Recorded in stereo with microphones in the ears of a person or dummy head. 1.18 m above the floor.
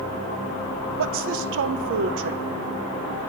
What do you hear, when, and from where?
1.0 s a woman speaking: 60° right (ahead or behind), 0.6 m